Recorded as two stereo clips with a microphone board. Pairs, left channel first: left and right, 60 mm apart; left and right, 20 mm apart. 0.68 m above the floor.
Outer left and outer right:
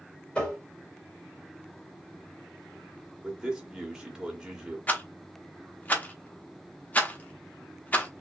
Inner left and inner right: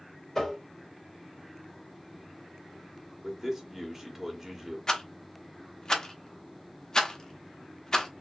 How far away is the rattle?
About 1.0 m.